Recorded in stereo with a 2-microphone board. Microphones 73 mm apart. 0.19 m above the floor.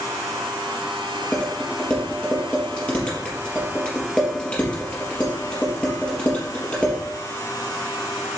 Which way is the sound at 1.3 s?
15° left (ahead or behind).